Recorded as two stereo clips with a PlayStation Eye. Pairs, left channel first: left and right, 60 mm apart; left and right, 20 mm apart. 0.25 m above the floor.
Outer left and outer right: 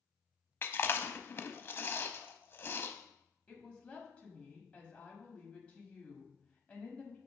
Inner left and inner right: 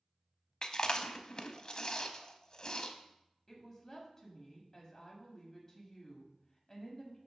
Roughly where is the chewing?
Left.